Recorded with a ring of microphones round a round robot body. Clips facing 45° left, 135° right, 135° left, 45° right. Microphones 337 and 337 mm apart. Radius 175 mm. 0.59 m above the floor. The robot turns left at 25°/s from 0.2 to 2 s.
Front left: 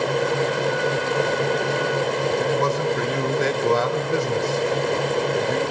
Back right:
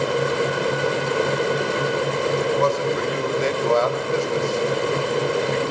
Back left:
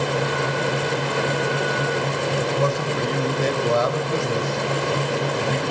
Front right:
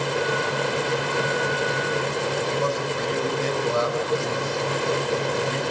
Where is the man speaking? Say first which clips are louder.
Back right 3 dB, back left 4 dB; 110° left, 2.5 m.